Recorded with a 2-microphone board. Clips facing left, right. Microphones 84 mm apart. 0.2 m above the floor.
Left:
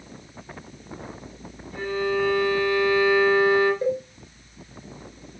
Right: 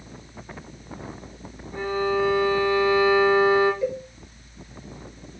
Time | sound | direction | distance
1.7 | a violin | 25° right (ahead or behind) | 3 m
3.8 | a cowbell | 40° left (ahead or behind) | 3 m